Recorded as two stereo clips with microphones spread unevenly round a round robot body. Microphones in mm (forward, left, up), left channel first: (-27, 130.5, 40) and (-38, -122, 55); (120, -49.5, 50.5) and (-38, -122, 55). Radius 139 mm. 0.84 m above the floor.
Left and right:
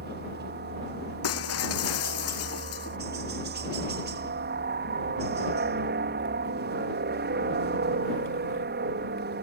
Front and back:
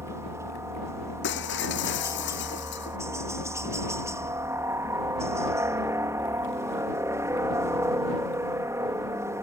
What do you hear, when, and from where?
0.0 s a helicopter: 90° right
1.2 s breaking glass: 50° left